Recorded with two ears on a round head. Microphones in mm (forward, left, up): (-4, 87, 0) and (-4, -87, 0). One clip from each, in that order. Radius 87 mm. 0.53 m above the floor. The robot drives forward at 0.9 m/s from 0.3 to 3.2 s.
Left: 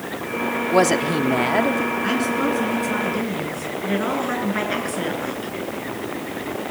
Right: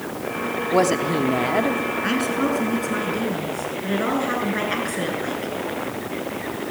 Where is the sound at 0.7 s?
15° left (ahead or behind), 1.1 m.